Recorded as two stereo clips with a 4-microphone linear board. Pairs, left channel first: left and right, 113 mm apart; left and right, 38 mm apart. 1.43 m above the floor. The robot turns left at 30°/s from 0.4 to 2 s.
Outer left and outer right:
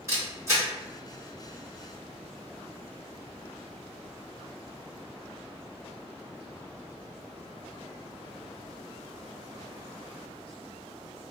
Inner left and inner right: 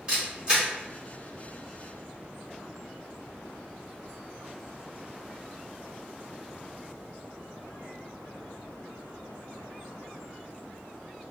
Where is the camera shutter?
25° right (ahead or behind), 2.0 m; by 0.7 s 35° right (ahead or behind), 2.0 m.